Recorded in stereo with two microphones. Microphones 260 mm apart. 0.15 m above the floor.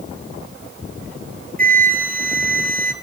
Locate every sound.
1.6 s a flute: 35° right (ahead or behind), 1.1 m